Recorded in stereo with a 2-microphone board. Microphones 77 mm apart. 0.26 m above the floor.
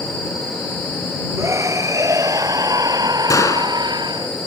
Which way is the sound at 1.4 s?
40° right (ahead or behind).